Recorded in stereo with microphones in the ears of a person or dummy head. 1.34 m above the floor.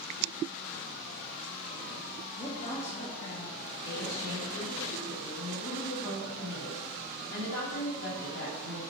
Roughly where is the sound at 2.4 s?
Left.